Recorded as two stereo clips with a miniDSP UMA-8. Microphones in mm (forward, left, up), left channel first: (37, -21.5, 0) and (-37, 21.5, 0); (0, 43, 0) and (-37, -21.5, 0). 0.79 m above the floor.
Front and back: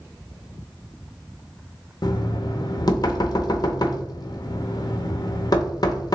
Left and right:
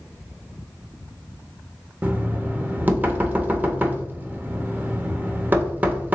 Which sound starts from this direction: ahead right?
Knocking, at 2.0 s.